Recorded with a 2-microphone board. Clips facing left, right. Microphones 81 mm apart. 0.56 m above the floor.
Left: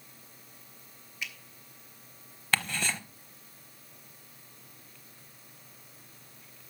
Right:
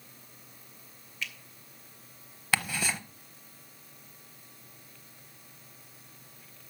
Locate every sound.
1.2 s a finger snap: 15° left (ahead or behind), 1.9 m
2.5 s ticking: 5° right (ahead or behind), 0.8 m